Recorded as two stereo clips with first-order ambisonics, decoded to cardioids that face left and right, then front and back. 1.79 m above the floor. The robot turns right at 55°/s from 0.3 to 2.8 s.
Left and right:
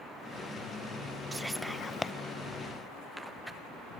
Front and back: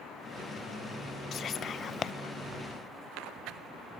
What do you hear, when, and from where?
1.3 s whispering: 15° right, 0.6 m; by 2.1 s 30° left, 0.6 m